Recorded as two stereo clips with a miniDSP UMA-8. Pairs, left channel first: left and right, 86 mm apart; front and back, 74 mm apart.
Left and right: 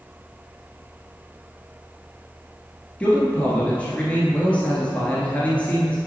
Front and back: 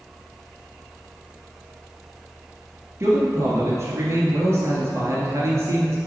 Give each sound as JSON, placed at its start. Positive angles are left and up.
{"t": 3.0, "sound": "a man speaking", "azimuth_deg": 155, "distance_m": 1.5}